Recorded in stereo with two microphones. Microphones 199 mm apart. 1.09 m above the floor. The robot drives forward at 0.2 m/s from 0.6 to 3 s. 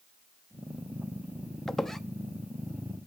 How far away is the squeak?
About 0.5 m.